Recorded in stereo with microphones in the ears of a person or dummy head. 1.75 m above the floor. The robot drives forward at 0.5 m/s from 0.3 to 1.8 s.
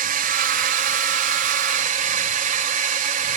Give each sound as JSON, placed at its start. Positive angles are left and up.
{"t": 0.0, "sound": "a drone", "side_deg": -45}